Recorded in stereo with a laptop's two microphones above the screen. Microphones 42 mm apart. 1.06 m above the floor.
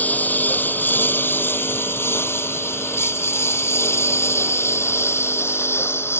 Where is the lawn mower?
40° left (ahead or behind); by 6.2 s 75° left (ahead or behind).